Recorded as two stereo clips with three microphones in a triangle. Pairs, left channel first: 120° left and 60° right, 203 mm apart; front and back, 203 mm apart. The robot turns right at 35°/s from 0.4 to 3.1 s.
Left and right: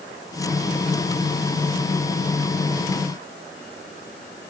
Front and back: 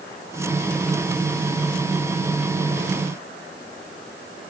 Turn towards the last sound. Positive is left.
No sound to turn to.